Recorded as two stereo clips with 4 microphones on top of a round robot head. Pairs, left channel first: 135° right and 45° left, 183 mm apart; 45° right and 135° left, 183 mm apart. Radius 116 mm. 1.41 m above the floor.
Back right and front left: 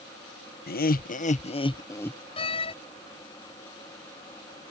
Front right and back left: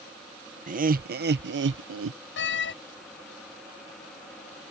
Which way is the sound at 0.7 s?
175° right.